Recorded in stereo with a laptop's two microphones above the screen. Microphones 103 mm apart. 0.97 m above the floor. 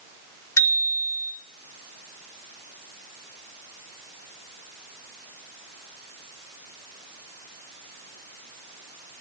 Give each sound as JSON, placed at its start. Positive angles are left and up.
{"t": 0.6, "sound": "a bicycle bell", "side_deg": 30, "distance_m": 2.5}